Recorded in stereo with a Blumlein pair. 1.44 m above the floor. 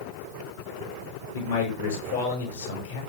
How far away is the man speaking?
About 6 m.